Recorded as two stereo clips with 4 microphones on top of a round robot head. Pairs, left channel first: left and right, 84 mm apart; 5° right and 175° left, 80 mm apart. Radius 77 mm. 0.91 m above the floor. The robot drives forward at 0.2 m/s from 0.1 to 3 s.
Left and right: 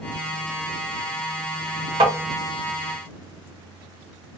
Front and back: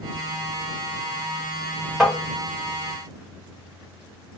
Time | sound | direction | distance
2.0 | tapping | 100° right | 0.7 m